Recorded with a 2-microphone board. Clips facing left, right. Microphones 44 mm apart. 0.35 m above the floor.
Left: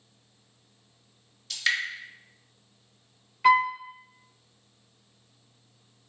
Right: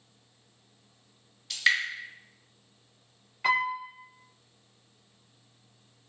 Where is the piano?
5° right (ahead or behind), 1.9 m.